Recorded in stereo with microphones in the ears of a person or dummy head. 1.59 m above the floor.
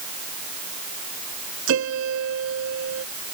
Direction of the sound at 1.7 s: 75° right (ahead or behind).